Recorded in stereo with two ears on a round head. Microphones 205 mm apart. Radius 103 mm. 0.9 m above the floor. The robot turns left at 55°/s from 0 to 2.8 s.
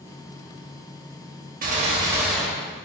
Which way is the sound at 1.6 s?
135° right.